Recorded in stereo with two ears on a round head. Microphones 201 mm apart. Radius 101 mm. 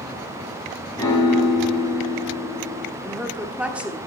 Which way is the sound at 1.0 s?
15° left (ahead or behind).